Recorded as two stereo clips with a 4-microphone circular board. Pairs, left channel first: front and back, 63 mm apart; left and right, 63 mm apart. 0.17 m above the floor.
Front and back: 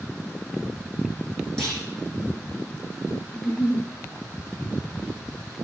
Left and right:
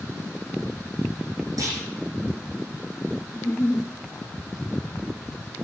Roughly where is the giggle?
Ahead left.